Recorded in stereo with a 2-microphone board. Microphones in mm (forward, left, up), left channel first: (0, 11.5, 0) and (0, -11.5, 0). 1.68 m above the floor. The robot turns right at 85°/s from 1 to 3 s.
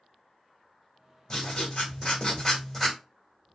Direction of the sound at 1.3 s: 45° left.